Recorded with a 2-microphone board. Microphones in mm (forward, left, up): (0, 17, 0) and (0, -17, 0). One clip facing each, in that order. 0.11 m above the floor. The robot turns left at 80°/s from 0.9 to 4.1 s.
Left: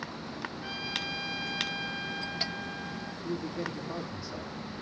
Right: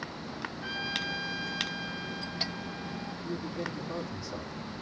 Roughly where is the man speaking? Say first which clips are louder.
Left 2 dB; left.